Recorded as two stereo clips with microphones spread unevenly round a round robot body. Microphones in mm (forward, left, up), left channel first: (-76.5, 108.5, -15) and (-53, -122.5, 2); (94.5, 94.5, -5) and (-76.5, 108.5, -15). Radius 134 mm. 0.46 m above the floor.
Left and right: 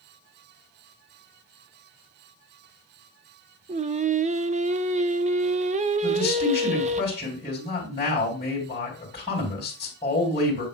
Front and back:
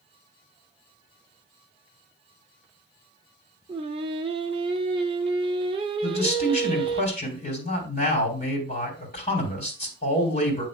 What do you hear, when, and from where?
3.7 s singing: 135° right, 0.5 m
6.0 s a man speaking: 30° left, 3 m